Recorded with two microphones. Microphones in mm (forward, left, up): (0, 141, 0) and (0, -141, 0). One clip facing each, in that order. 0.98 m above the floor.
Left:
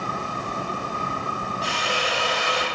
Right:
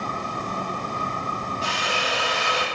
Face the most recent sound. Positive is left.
turn(degrees=0)  # may be behind; listen again after turning